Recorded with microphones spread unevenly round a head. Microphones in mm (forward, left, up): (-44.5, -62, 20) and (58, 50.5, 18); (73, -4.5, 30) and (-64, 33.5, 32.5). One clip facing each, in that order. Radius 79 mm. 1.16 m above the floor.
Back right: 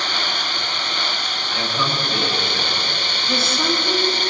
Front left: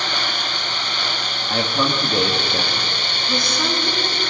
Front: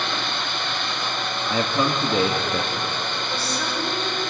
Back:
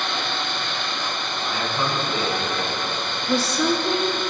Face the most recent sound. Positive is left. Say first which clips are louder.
# back right 1 dB, back 12 dB
turn(degrees=145)